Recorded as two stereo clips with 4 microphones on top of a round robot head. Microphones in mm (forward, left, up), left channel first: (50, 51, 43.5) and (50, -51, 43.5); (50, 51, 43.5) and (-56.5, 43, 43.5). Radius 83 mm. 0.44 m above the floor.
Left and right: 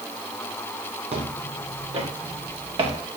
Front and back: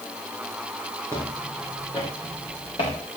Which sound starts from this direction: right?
Footsteps, at 1.1 s.